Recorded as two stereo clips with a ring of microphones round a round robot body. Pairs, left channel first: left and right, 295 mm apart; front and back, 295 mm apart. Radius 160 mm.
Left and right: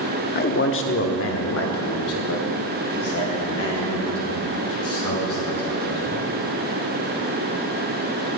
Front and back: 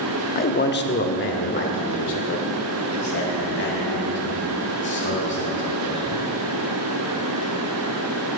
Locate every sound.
0.3 s a man speaking: 45° left, 0.7 m; by 6.2 s 50° left, 5.5 m